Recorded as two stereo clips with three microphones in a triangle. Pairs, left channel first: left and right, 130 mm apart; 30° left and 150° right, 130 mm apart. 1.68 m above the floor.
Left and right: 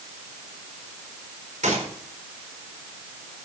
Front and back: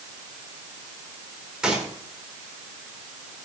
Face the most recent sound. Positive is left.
turn(degrees=-65)